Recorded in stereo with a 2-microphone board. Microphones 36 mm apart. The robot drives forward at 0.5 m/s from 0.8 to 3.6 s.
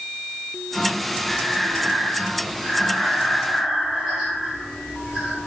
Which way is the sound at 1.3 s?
15° right (ahead or behind).